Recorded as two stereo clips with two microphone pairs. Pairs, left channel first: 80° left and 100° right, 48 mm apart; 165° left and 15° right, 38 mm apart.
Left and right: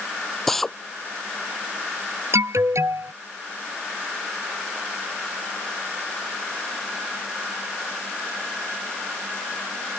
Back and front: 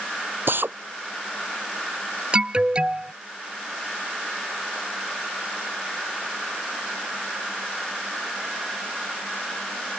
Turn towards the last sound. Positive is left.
turn(degrees=-85)